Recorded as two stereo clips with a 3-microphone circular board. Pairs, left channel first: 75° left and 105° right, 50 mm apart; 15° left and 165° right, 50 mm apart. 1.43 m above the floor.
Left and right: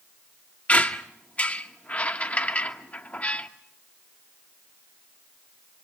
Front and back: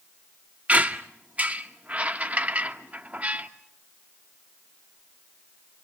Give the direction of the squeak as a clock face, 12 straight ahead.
7 o'clock.